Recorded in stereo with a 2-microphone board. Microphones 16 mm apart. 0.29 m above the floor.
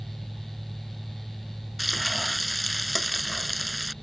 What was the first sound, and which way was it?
Frying, 5° right (ahead or behind).